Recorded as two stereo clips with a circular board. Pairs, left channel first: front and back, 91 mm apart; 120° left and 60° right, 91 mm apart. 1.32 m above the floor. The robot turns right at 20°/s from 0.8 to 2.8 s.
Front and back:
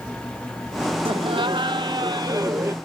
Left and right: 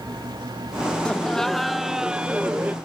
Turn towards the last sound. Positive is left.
turn(degrees=-125)